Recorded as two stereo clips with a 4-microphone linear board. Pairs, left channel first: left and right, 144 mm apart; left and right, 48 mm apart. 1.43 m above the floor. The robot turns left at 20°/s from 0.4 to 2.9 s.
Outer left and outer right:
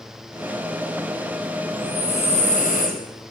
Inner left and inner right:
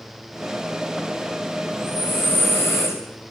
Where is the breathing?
40° left (ahead or behind), 3 m; by 3.0 s 60° left (ahead or behind), 3 m.